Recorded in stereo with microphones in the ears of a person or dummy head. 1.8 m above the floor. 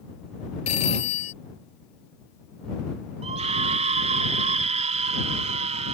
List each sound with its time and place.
0.7 s a phone ringing: 35° left (ahead or behind)
3.2 s a scream: 40° right (ahead or behind)